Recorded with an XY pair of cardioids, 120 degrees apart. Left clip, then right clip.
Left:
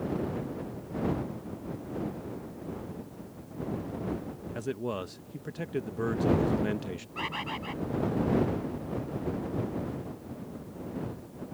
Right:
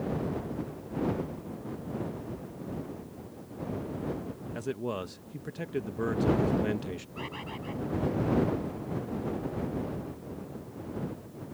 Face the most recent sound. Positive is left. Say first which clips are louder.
# left 5 dB
turn(degrees=40)